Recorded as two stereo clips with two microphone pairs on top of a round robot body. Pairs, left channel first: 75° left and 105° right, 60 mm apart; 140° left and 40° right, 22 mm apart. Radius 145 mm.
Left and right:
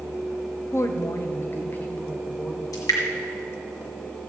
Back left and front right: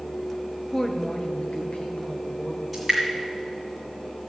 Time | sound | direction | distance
0.7 | a woman speaking | 60° left | 1.3 m
2.7 | dripping | 60° left | 1.7 m